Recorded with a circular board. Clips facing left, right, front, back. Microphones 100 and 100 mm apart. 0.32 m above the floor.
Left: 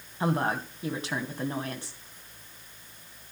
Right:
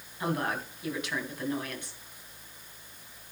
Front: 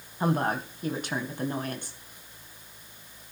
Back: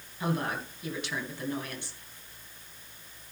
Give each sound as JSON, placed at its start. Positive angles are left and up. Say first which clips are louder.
{"t": 0.2, "sound": "a woman speaking", "louder": "left 4 dB, front 5 dB", "azimuth_deg": 40, "distance_m": 2.5}